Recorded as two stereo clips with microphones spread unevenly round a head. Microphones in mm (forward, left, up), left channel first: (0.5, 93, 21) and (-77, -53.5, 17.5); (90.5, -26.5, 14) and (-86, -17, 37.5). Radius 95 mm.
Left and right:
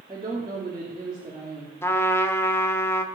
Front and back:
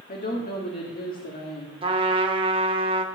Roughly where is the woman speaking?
Ahead right.